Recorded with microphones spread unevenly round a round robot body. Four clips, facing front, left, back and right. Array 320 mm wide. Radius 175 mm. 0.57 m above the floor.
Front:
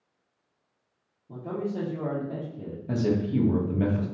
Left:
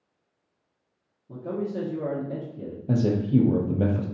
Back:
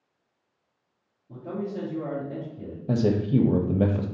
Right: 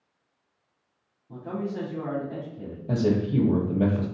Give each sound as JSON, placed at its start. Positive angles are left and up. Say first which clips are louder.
{"t": 1.3, "sound": "a man speaking", "louder": "left 2 dB, front 1 dB", "azimuth_deg": 40, "distance_m": 1.4}
{"t": 2.9, "sound": "a man speaking", "louder": "left 1 dB, back 3 dB", "azimuth_deg": 165, "distance_m": 0.7}